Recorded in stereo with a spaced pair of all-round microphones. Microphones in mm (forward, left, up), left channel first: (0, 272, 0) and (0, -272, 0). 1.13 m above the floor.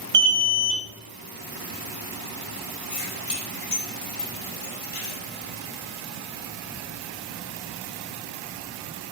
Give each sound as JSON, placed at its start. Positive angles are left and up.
{"t": 0.1, "sound": "an alarm", "side_deg": -75, "distance_m": 0.9}
{"t": 2.9, "sound": "keys jangling", "side_deg": 80, "distance_m": 2.0}